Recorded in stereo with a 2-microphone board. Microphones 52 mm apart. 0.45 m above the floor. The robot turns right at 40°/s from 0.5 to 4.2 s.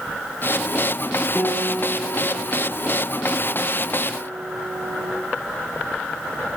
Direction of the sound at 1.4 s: 160° left.